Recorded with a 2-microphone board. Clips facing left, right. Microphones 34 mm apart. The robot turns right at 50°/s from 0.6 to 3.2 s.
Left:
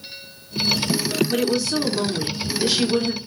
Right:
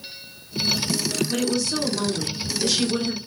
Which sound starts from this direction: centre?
A woman speaking, at 1.3 s.